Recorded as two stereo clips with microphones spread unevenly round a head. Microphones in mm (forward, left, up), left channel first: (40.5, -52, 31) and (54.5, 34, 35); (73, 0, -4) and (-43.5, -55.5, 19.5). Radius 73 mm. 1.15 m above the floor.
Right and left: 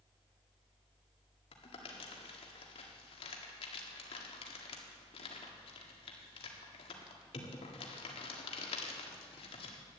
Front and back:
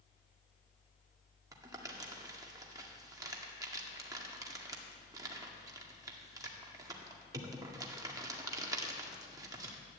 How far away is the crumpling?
About 1.8 m.